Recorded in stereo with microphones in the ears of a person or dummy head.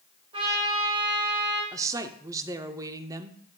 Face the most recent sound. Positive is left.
turn(degrees=-15)  # may be behind; listen again after turning